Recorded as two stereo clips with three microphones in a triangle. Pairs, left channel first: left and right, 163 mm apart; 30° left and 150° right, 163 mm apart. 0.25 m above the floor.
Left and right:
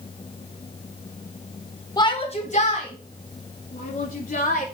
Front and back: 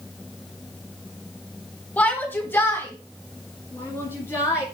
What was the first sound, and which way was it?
A shout, 95° left.